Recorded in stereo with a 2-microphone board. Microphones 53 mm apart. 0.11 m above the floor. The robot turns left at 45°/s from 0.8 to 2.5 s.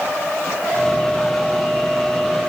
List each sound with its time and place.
Only background noise.